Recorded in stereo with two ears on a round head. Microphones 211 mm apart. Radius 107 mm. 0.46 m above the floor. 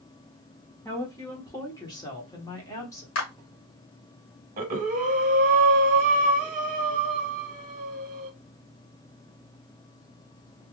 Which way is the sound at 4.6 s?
30° right (ahead or behind).